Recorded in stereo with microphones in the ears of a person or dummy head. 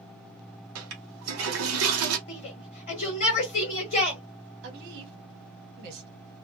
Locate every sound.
0.8 s a toilet flushing: 80° right, 0.9 m
2.3 s a shout: 50° left (ahead or behind), 1.0 m
4.6 s a woman speaking: 60° right (ahead or behind), 1.1 m